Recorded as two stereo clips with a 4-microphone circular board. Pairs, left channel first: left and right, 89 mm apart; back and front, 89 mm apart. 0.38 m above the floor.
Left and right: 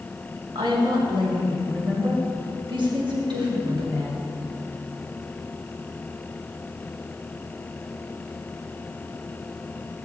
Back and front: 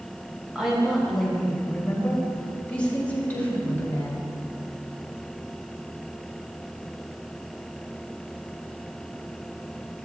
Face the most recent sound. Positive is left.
turn(degrees=-115)